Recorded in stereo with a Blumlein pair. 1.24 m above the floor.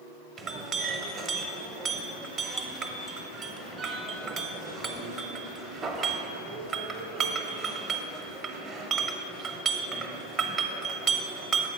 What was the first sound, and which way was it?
A clink, 20° right.